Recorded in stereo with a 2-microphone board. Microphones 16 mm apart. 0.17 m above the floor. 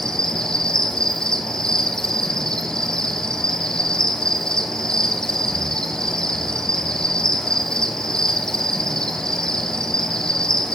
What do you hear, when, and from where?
0.0 s an insect: 60° left (ahead or behind), 1.9 m